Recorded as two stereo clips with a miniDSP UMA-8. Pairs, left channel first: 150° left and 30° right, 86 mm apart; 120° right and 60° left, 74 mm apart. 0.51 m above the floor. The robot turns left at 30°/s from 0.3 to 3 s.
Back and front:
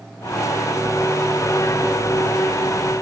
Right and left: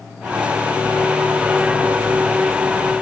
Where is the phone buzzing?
I don't hear a phone buzzing.